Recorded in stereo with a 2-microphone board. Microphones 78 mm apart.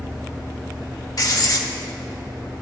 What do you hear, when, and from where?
1.2 s writing: 55° left (ahead or behind), 0.7 m